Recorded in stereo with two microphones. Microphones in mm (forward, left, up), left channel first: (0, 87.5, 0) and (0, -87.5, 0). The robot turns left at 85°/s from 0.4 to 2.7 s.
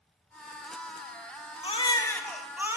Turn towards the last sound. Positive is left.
turn(degrees=-25)